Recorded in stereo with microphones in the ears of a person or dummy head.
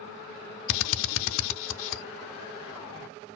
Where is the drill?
75° left (ahead or behind), 0.7 m.